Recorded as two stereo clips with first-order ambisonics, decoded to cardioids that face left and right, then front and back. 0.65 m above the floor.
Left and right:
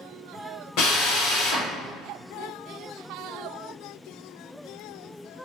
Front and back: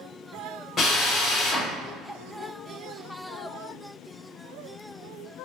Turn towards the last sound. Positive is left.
turn(degrees=65)